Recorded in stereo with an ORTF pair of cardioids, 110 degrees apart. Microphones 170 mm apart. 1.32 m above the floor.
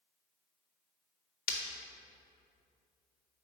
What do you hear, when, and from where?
1.5 s breaking glass: 65° left, 1.2 m